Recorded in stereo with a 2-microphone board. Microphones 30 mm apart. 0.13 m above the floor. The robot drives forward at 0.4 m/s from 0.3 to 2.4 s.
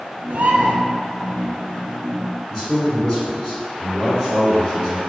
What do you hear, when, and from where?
0.3 s a bird: 65° right (ahead or behind), 0.6 m; by 0.7 s 55° right (ahead or behind), 0.6 m
2.5 s a man speaking: 20° left (ahead or behind), 1.8 m